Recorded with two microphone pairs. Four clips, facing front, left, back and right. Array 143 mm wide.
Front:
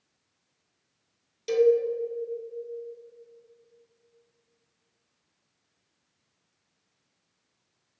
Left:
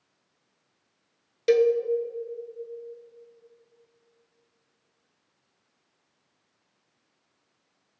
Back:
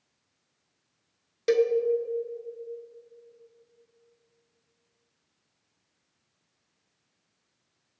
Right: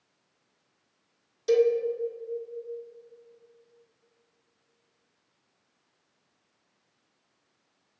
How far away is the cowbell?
About 0.7 m.